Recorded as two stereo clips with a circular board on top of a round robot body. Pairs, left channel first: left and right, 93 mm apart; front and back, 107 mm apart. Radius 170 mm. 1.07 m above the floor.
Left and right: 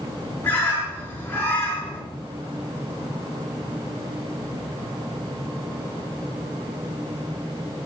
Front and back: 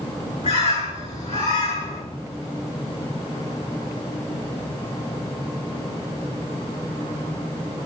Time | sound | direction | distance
0.4 | a bird | 20° left | 6 m